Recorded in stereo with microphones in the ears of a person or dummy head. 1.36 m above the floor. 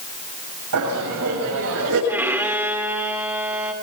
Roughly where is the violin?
Centre.